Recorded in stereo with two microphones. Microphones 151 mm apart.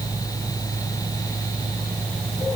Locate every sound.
Only background noise.